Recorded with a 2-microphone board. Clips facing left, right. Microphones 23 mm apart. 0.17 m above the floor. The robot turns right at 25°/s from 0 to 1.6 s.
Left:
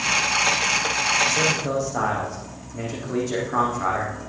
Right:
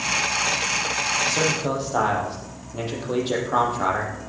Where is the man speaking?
55° right (ahead or behind), 5 m; by 4.2 s 60° right (ahead or behind), 5 m.